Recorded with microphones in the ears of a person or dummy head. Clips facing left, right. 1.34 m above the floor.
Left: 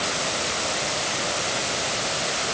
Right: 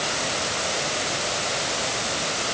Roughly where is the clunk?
No clunk in this recording.